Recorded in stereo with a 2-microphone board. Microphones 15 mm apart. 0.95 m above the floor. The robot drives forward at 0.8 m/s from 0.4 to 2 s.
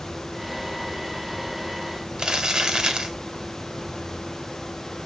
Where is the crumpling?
60° right (ahead or behind), 1.6 m.